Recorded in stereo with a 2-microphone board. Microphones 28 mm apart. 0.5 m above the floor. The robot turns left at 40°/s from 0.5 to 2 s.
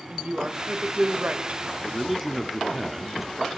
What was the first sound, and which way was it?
A woman speaking, 75° right.